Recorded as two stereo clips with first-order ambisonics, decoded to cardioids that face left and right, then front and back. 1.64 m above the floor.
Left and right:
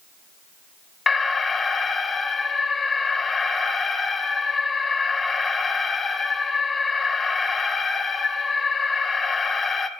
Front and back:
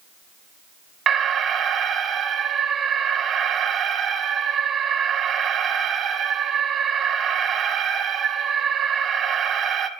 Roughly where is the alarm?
Behind left.